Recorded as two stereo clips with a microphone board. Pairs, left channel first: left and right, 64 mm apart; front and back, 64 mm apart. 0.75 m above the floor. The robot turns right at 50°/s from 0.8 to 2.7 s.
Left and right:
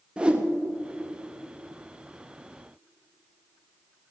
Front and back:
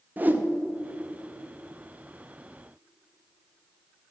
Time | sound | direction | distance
0.2 | a whoosh | 150° right | 0.8 m